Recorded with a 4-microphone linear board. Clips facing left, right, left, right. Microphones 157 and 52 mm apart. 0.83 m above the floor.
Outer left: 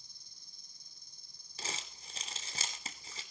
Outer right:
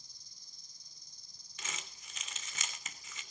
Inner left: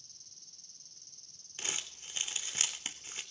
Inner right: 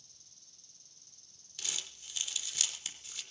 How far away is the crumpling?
About 3 m.